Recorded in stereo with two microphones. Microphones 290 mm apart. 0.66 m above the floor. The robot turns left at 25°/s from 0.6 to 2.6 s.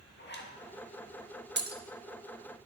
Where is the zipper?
40° left (ahead or behind), 1.1 m.